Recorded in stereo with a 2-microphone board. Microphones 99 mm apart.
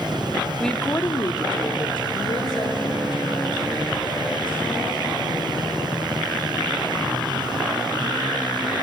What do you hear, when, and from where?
0.6 s a woman speaking: 5° left (ahead or behind), 0.9 m; by 6.0 s 55° left (ahead or behind), 5.5 m